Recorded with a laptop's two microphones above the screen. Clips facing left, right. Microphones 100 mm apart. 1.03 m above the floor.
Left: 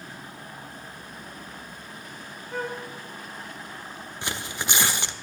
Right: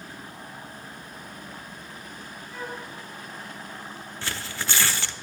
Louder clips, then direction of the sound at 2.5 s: Left 5 dB; 65° left (ahead or behind).